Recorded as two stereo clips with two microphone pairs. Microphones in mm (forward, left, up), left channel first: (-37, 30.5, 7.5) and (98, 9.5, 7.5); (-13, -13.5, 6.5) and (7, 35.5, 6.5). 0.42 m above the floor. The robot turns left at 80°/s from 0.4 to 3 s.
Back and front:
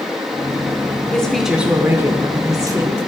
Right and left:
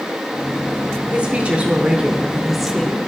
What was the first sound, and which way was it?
A woman speaking, 100° left.